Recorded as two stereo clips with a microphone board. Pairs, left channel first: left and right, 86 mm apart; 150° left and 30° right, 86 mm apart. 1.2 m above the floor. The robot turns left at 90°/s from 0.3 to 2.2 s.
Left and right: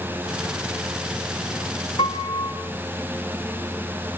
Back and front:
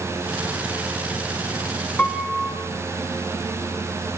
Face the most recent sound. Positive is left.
turn(degrees=60)